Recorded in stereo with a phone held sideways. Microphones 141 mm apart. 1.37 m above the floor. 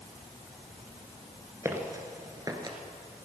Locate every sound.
1.6 s footsteps: 20° right (ahead or behind), 1.3 m; by 2.8 s 30° right (ahead or behind), 1.5 m